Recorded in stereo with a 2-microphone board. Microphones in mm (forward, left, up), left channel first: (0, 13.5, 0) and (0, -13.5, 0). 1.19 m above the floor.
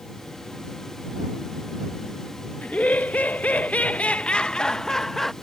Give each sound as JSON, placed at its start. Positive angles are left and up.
{"t": 2.6, "sound": "laughter", "side_deg": 75}